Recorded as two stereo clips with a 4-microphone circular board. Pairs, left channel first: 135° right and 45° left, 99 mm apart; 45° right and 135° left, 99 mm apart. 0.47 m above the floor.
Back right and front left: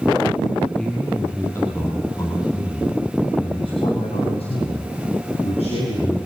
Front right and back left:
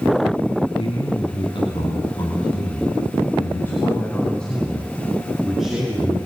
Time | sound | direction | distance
0.8 | a man speaking | 55° right | 4 m